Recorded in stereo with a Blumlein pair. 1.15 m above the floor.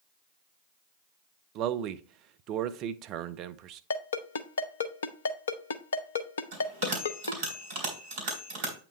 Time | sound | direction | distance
1.6 | a man speaking | 40° right | 0.6 m
3.9 | a ringtone | 65° left | 0.7 m
6.5 | a bell | 55° right | 3.5 m